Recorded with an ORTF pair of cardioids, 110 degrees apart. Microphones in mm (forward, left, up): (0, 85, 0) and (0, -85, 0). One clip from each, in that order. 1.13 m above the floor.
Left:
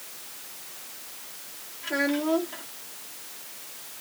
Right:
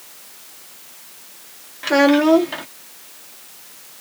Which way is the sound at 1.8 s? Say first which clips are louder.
Right 12 dB; 70° right.